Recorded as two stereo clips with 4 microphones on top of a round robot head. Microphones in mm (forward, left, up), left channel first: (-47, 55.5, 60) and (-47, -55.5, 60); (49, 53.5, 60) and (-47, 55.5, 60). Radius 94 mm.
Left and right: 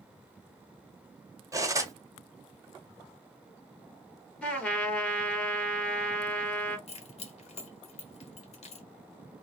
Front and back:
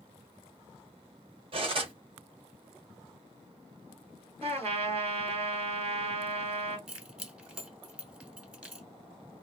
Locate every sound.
1.5 s cutlery clinking: 150° right, 1.0 m
4.4 s a trumpet: 170° left, 1.7 m
6.9 s keys jangling: 100° left, 1.4 m